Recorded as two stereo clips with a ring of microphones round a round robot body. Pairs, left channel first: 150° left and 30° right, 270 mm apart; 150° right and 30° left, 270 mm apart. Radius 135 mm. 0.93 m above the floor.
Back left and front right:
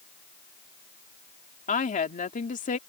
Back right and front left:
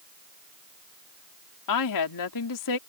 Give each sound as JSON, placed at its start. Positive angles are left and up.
{"t": 1.7, "sound": "a woman speaking", "azimuth_deg": -150}